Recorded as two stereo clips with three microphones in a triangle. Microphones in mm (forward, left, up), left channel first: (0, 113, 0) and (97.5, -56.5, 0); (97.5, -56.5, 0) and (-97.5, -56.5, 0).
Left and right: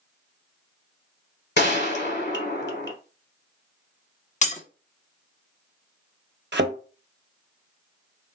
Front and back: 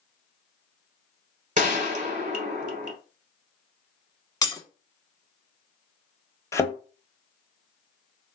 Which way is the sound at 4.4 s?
70° left.